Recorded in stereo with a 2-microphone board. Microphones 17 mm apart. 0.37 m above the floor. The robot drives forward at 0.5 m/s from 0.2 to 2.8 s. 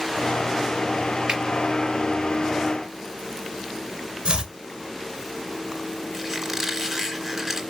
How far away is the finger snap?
About 5.5 m.